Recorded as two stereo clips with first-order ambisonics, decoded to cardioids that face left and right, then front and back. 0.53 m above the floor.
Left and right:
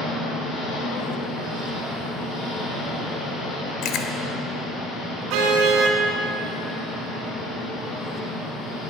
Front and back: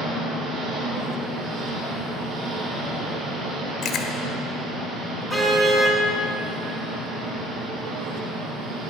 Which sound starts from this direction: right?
A car horn, at 5.3 s.